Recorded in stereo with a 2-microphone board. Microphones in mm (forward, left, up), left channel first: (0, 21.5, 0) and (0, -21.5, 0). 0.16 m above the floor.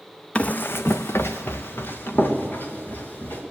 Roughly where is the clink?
No clink in this recording.